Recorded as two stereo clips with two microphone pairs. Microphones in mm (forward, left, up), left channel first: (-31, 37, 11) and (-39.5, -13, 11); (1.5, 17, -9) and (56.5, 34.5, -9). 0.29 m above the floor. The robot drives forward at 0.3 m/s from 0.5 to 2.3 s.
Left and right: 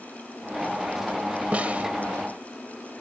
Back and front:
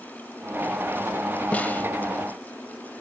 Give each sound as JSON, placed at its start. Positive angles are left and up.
{"t": 1.5, "sound": "a snare drum", "azimuth_deg": -125, "distance_m": 0.8}